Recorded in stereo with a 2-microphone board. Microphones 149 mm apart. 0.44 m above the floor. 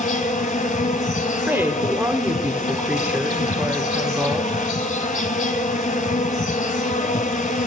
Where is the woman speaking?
15° right (ahead or behind), 1.0 m.